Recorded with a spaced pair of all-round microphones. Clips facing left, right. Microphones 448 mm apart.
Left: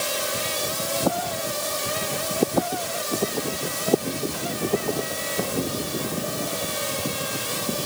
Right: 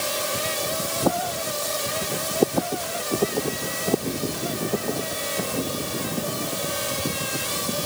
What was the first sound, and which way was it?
Only background noise.